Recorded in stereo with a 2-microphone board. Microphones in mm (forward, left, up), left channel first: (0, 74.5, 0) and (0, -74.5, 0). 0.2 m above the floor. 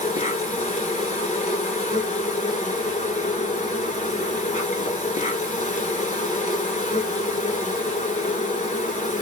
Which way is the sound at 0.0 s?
55° left (ahead or behind).